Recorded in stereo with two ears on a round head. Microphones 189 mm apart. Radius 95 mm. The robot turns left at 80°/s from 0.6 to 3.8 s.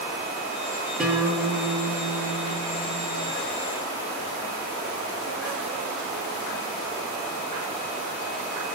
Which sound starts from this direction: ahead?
A guitar, at 1.0 s.